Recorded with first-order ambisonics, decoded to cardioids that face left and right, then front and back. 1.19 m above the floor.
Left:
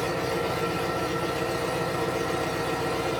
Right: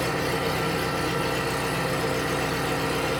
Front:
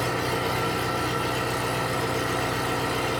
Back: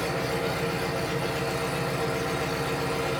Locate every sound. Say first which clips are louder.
0.0 s an engine running: right 1 dB, front 2 dB; 45° right, 2.5 m